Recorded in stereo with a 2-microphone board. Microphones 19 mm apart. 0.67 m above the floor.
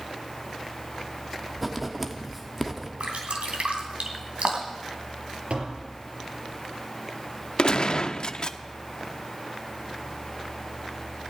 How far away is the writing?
About 1.3 m.